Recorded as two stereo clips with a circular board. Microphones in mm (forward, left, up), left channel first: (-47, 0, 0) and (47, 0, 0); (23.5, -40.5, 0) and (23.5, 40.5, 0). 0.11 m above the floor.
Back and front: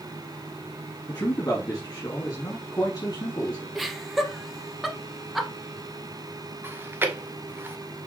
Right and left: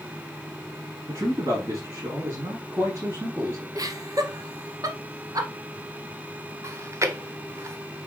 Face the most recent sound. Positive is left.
turn(degrees=55)